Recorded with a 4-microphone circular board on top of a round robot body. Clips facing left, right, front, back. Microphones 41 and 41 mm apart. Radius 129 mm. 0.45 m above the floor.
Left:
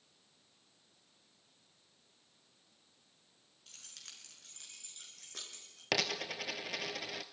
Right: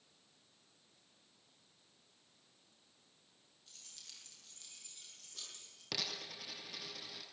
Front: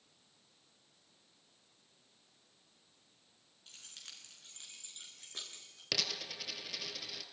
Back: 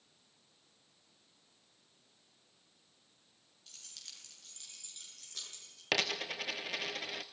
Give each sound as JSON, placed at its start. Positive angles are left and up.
{"t": 3.7, "sound": "keys jangling", "azimuth_deg": 60, "distance_m": 6.0}
{"t": 5.9, "sound": "a dropped coin", "azimuth_deg": 135, "distance_m": 0.6}